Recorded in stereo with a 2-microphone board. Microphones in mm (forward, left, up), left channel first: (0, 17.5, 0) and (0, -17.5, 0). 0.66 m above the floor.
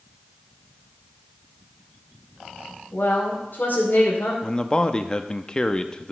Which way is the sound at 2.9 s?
65° left (ahead or behind).